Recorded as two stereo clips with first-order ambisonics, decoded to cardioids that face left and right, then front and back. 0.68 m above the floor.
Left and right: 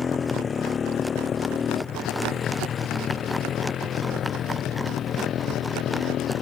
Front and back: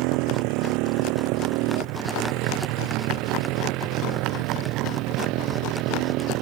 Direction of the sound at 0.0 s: 160° left.